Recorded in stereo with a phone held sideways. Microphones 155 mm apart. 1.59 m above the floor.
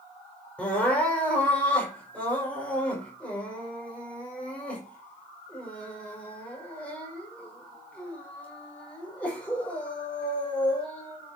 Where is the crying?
10° left (ahead or behind), 6 m.